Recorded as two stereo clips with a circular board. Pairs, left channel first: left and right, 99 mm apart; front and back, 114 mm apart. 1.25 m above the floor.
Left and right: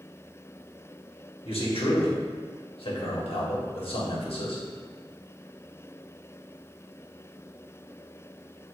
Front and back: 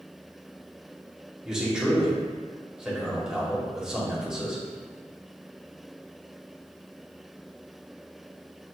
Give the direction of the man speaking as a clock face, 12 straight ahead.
9 o'clock.